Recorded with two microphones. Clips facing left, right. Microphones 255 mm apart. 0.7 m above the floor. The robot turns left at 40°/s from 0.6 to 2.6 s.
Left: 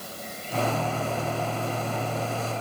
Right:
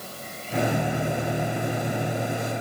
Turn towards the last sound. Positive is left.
No sound to turn to.